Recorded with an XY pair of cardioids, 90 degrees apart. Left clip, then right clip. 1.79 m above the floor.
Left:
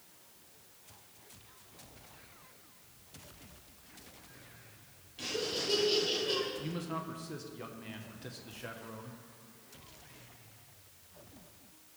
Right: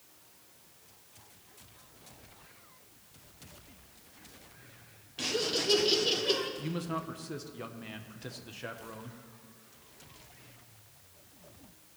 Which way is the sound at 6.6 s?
25° right.